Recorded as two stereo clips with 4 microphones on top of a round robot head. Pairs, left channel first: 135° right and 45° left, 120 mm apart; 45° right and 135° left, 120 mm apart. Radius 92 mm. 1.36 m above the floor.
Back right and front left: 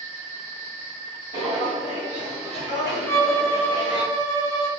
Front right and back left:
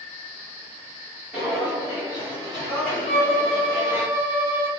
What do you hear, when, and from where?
1.3 s footsteps: 50° left, 1.4 m; by 4.1 s 120° left, 2 m
3.1 s a violin: 10° left, 2.0 m